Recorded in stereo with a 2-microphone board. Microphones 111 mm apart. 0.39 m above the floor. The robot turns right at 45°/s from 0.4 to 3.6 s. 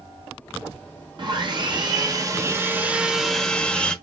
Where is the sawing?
95° right, 0.7 m; by 3.9 s 15° left, 0.7 m.